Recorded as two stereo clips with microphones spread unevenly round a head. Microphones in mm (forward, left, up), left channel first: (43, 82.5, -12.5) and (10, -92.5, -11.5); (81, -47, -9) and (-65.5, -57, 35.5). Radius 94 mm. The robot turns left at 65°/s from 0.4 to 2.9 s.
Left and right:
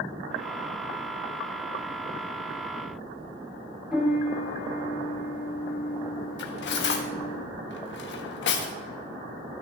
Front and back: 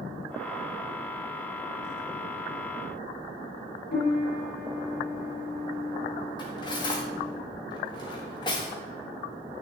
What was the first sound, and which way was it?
A piano, 15° right.